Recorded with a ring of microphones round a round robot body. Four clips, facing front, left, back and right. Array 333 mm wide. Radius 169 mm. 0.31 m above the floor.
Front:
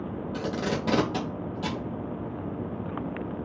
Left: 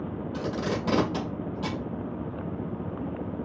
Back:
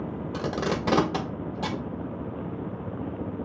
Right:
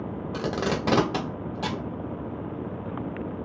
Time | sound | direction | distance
0.3 | tape being pulled | 120° right | 1.2 m